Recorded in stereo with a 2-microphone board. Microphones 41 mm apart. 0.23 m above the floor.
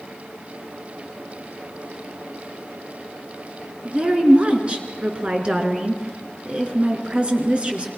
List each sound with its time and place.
3.9 s a woman speaking: 30° right (ahead or behind), 3 m